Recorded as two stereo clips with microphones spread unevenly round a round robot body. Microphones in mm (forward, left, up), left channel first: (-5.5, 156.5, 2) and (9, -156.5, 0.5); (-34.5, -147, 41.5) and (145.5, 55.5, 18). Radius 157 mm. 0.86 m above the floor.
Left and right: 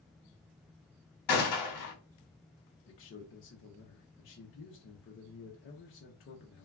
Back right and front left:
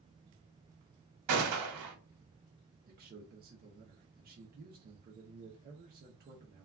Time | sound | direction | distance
1.3 | a gunshot | 60° left | 1.1 m
2.9 | a man speaking | 70° left | 0.6 m